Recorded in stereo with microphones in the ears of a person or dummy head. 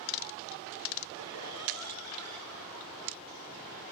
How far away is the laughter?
About 4.5 m.